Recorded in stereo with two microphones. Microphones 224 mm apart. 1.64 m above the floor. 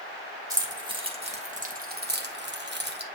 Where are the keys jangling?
15° right (ahead or behind), 1.9 m; by 3.0 s 50° right (ahead or behind), 1.2 m.